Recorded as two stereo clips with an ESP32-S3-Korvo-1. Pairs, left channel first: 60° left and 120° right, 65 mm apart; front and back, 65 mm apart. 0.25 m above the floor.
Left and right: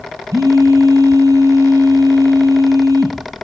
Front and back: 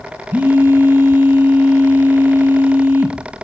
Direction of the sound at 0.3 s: 125° right.